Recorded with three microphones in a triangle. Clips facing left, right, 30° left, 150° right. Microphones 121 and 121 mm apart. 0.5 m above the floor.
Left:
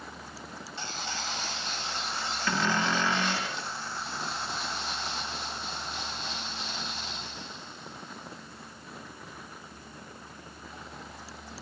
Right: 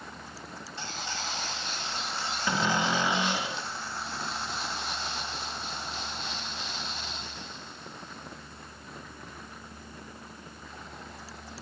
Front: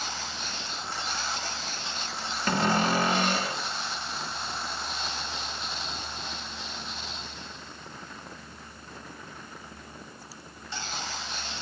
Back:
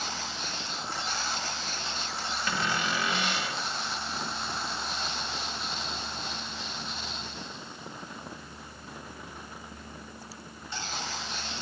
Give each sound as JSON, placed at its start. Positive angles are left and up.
{"t": 2.5, "sound": "a cupboard door", "azimuth_deg": -15, "distance_m": 1.3}